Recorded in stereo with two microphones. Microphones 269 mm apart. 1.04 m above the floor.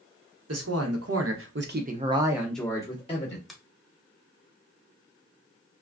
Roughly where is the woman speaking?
Right.